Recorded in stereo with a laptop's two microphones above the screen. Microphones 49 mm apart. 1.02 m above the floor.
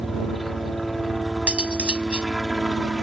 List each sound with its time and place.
0.0 s a helicopter: centre (ahead or behind)
1.5 s cutlery clinking: 20° right (ahead or behind)